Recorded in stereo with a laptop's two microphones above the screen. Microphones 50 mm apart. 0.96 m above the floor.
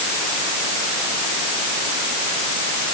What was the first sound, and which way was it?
Only background noise.